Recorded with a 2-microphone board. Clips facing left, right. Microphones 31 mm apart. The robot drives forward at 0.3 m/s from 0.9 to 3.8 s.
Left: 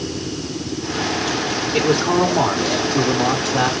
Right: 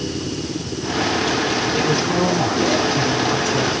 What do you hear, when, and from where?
1.7 s a man speaking: 60° left (ahead or behind), 3.5 m; by 3.7 s 70° left (ahead or behind), 3 m